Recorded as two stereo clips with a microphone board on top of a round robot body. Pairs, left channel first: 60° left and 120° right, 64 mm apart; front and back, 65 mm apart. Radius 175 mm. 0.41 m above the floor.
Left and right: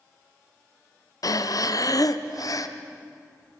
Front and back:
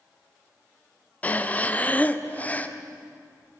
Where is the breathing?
65° left, 0.9 m.